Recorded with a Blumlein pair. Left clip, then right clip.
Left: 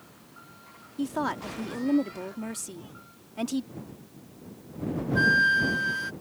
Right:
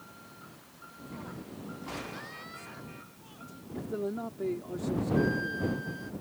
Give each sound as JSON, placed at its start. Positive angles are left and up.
{"t": 1.0, "sound": "a woman speaking", "azimuth_deg": 40}
{"t": 3.7, "sound": "a man speaking", "azimuth_deg": -45}
{"t": 5.2, "sound": "a flute", "azimuth_deg": 35}